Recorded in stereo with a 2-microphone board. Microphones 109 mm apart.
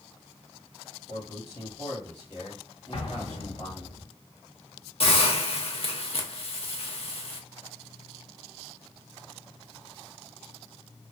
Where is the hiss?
55° left (ahead or behind), 0.6 m.